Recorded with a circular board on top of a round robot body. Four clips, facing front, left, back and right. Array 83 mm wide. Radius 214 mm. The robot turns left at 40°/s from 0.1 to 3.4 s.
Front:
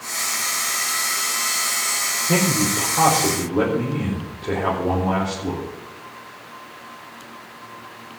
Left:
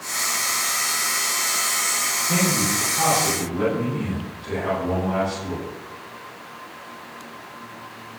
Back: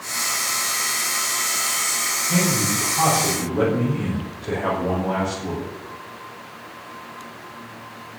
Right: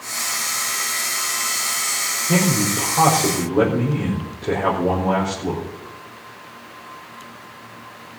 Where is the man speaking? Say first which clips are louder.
Right 4 dB, front 2 dB; 30° right, 5 m; by 5.7 s 75° right, 5 m.